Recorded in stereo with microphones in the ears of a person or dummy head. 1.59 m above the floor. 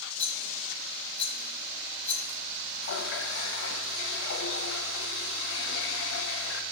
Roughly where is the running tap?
Left.